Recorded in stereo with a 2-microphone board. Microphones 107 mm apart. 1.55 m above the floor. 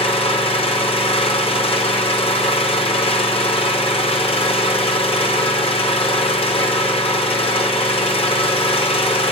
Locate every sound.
0.0 s an engine running: 60° left (ahead or behind), 4.5 m